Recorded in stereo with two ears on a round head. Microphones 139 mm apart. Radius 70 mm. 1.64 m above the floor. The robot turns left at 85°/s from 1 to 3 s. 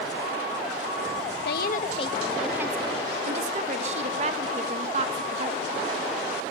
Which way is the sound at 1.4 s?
85° left.